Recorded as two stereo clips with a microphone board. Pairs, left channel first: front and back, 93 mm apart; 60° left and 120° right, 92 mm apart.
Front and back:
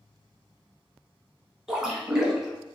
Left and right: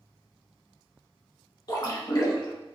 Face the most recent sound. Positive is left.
turn(degrees=95)